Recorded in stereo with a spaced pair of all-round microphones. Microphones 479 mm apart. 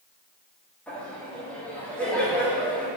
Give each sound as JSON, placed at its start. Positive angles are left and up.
{"t": 0.9, "sound": "laughter", "side_deg": 5, "distance_m": 2.5}